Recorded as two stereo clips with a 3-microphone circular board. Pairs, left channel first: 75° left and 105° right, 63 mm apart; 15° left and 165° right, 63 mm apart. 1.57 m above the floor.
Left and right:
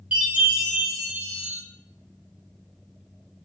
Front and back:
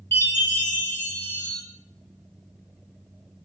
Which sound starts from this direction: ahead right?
A chime, at 0.1 s.